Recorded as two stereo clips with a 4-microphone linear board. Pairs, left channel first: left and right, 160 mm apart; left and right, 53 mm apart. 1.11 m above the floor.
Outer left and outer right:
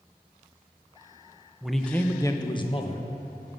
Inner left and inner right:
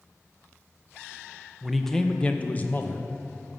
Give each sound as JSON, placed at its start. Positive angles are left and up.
{"t": 1.6, "sound": "a man speaking", "side_deg": -5, "distance_m": 0.7}